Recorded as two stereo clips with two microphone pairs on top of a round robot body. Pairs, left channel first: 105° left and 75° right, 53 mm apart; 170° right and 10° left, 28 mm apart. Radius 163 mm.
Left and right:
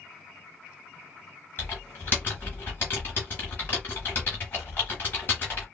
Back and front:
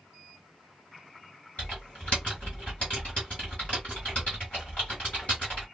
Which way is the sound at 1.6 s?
160° left.